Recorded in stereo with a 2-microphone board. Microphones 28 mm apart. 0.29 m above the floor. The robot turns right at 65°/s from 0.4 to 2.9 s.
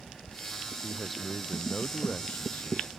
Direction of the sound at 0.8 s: 15° right.